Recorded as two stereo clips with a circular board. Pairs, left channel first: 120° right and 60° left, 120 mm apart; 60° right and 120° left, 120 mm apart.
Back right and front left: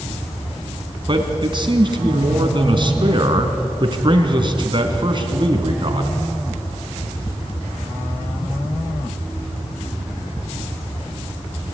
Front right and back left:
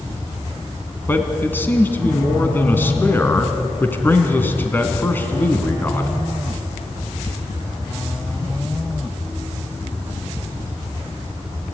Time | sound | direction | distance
1.1 | a man speaking | 15° left | 3 m